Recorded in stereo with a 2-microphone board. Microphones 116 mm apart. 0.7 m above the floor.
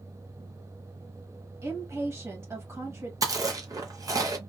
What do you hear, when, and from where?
1.6 s a woman speaking: 25° right (ahead or behind), 1.2 m
3.2 s chewing: 30° right (ahead or behind), 0.6 m